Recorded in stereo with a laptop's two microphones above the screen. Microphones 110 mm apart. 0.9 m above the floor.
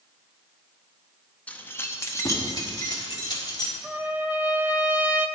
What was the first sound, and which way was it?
Keys jangling, 15° left (ahead or behind).